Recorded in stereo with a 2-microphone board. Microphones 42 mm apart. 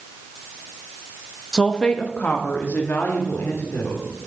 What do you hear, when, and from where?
1.5 s a woman speaking: 5° left (ahead or behind), 1.0 m; by 4.0 s 70° left (ahead or behind), 3 m